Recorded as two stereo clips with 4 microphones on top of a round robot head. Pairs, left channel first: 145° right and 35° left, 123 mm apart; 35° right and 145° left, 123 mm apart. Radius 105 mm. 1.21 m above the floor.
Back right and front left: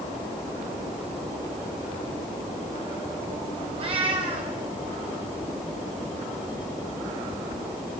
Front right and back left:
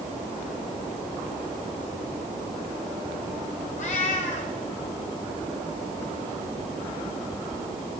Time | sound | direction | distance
3.8 | a cat meowing | 10° right | 1.5 m